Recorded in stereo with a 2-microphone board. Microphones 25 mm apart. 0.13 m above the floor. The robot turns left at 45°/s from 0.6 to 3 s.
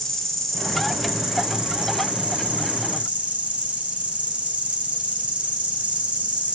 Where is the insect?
10° left, 1.5 m; by 6.6 s 95° right, 1.5 m.